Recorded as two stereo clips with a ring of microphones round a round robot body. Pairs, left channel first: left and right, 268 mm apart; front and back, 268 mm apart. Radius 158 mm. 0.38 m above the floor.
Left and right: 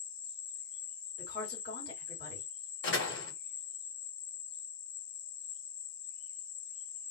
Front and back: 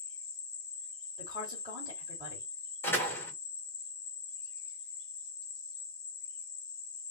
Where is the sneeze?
I don't hear a sneeze.